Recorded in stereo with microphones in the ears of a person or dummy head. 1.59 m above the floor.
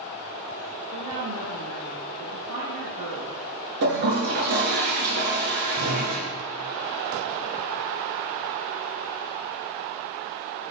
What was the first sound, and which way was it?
A woman speaking, 55° right (ahead or behind).